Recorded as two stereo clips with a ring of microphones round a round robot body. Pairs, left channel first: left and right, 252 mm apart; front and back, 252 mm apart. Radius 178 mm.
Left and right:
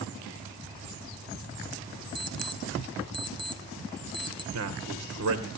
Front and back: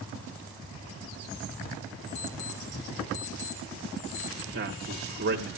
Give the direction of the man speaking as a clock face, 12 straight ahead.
4 o'clock.